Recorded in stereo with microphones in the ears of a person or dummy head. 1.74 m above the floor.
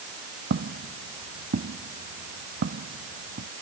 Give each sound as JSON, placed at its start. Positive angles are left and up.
{"t": 0.5, "sound": "footsteps", "side_deg": -50}